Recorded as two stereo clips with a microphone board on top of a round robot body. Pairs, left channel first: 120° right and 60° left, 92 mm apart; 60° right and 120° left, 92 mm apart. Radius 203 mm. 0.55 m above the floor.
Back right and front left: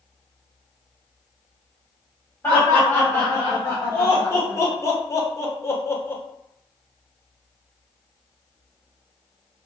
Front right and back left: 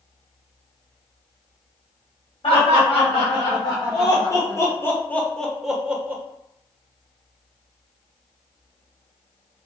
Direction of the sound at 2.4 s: 55° right.